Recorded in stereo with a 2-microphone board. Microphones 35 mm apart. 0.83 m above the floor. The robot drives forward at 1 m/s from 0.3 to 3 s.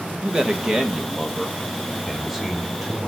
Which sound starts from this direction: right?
A man speaking, at 0.2 s.